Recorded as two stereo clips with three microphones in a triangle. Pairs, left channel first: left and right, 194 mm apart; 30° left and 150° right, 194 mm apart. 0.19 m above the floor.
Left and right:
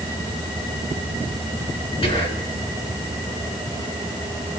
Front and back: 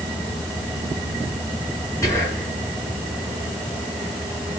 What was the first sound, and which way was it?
Whispering, 85° left.